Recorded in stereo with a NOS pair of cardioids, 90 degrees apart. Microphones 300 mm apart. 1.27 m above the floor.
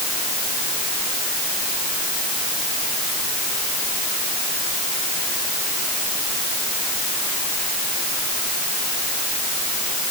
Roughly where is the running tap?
No running tap in this recording.